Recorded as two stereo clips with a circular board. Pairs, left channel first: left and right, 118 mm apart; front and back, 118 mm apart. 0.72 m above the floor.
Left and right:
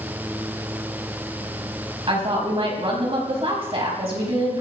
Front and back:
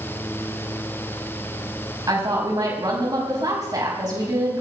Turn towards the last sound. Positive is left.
turn(degrees=-125)